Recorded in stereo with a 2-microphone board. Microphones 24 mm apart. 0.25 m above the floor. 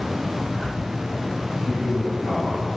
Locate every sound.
1.6 s a man speaking: 40° right (ahead or behind), 2.5 m